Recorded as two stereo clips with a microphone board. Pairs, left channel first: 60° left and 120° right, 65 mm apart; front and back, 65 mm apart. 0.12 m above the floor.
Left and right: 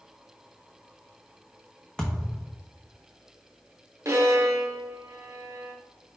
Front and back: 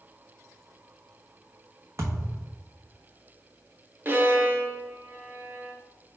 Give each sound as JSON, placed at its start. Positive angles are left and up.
{"t": 2.0, "sound": "a thud", "azimuth_deg": 140, "distance_m": 1.0}
{"t": 4.0, "sound": "a violin", "azimuth_deg": -135, "distance_m": 0.7}